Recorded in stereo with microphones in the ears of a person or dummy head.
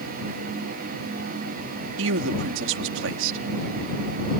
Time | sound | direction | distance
2.0 | a man speaking | 75° right (ahead or behind) | ?